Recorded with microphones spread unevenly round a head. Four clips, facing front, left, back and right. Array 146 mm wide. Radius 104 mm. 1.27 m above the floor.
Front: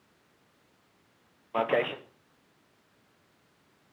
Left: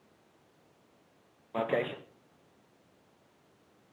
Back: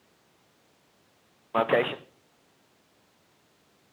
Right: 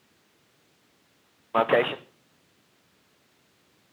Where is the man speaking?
90° right, 0.8 m.